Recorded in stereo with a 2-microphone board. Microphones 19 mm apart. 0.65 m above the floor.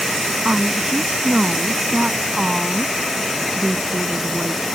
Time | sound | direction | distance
0.5 | a woman speaking | 60° right (ahead or behind) | ?